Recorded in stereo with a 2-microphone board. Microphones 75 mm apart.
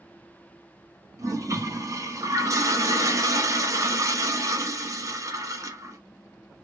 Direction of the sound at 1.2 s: 45° right (ahead or behind).